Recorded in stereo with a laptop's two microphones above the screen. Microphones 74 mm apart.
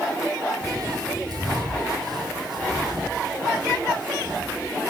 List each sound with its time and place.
0.6 s footsteps: 55° right (ahead or behind), 1.8 m; by 4.9 s 75° right (ahead or behind), 4 m